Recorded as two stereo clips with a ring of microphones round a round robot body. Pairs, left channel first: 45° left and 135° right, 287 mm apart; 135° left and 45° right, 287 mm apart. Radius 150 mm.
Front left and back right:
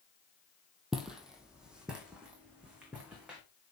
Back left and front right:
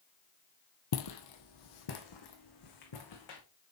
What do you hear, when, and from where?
0.9 s footsteps: 135° left, 1.0 m; by 3.4 s 140° left, 2.5 m